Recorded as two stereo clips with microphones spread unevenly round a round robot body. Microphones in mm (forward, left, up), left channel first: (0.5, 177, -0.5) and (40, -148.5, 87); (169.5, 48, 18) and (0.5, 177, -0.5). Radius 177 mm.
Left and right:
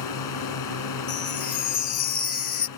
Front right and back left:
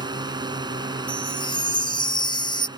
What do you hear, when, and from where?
0.0 s a drone: 70° left
1.1 s a chime: 30° left